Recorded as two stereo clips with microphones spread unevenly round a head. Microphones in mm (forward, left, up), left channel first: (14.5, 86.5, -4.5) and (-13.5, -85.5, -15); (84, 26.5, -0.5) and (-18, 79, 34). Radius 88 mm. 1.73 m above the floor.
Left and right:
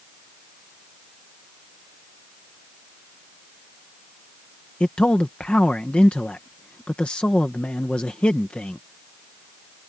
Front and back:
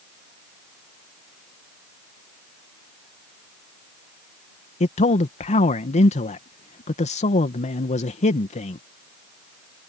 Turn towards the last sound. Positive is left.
turn(degrees=0)